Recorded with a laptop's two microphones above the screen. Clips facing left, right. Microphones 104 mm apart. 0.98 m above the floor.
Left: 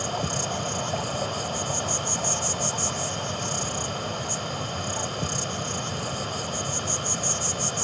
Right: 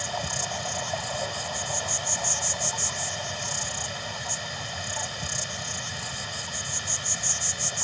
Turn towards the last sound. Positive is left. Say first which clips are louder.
# left 3 dB
turn(degrees=45)  # may be behind; listen again after turning